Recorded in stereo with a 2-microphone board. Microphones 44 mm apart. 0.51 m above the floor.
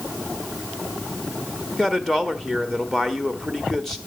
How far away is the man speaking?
About 1.1 m.